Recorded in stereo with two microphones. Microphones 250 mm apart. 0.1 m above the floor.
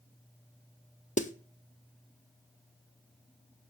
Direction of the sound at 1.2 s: 30° left (ahead or behind).